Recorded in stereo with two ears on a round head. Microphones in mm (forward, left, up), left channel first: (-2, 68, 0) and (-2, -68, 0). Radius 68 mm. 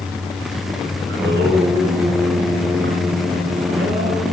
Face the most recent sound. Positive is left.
turn(degrees=-85)